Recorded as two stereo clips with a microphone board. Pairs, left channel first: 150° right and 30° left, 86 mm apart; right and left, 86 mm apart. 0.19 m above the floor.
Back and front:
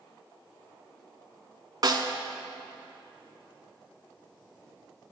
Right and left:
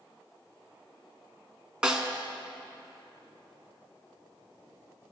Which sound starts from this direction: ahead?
A snare drum, at 1.8 s.